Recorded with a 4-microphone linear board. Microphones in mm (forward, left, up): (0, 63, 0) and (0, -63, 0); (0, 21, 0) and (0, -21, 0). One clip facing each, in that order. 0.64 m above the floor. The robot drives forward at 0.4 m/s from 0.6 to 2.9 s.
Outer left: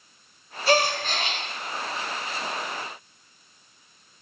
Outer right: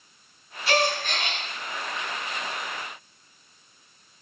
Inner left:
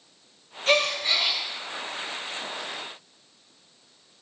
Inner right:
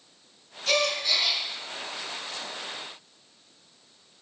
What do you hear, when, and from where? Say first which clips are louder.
0.7 s a gasp: outer left 2 dB, inner left 3 dB; 35° left (ahead or behind), 2 m; by 1.4 s 30° left (ahead or behind), 2.5 m